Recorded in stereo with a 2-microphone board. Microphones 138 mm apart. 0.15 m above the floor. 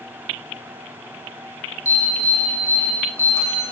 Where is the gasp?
I don't hear a gasp.